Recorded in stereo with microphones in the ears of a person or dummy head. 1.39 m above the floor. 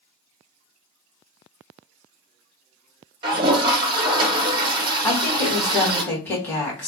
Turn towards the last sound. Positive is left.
turn(degrees=10)  # may be behind; listen again after turning